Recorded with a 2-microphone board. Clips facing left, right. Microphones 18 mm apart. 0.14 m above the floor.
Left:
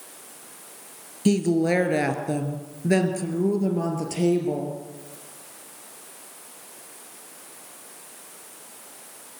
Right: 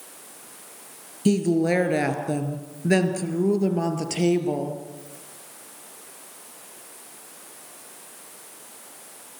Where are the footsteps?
I don't hear footsteps.